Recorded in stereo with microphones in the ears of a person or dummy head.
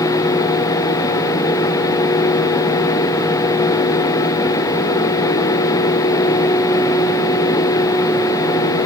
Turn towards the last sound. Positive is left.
No sound to turn to.